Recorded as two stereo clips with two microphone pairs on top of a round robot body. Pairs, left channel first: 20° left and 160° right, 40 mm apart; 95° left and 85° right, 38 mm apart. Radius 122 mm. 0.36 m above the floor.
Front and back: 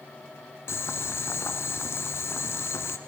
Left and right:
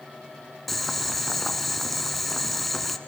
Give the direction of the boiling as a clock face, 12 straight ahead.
12 o'clock.